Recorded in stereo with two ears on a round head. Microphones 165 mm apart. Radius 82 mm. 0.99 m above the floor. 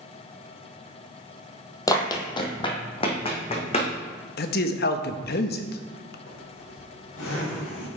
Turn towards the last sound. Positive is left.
turn(degrees=80)